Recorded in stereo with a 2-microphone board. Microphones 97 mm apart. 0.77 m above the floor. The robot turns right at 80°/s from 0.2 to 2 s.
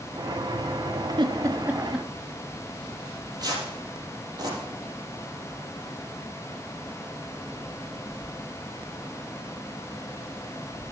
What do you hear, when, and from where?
1.2 s a giggle: 55° right (ahead or behind), 0.7 m; by 2.1 s 5° left (ahead or behind), 0.7 m
3.0 s tearing paper: 45° right (ahead or behind), 4 m